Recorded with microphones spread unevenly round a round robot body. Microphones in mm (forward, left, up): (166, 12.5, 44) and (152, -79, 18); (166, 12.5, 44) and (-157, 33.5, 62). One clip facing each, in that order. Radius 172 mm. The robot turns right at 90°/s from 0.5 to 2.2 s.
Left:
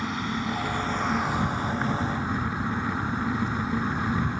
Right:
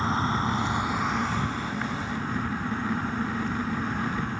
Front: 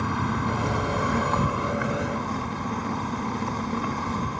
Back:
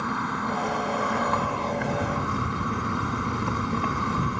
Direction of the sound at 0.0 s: 40° right.